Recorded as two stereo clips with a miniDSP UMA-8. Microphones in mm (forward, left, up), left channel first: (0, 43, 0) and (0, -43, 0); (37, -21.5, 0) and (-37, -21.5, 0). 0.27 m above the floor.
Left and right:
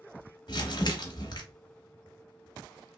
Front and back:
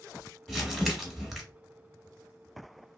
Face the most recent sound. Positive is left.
turn(degrees=90)